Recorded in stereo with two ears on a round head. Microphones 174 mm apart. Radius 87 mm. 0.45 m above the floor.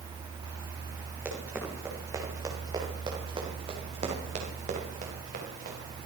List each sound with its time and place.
1.2 s running footsteps: 10° right (ahead or behind), 6.5 m; by 5.8 s 50° right (ahead or behind), 6 m